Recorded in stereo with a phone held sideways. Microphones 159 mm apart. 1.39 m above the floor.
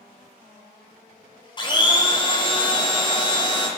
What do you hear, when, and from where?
1.6 s a blender: 30° left (ahead or behind), 0.5 m